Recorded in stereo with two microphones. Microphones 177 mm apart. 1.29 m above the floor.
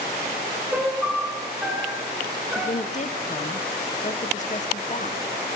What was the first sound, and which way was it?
A piano, 5° right (ahead or behind).